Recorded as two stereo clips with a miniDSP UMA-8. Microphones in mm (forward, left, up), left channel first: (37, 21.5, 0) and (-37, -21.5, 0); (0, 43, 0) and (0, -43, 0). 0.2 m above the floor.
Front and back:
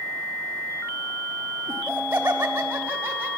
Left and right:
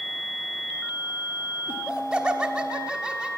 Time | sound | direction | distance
1.7 | laughter | 160° right | 1.2 m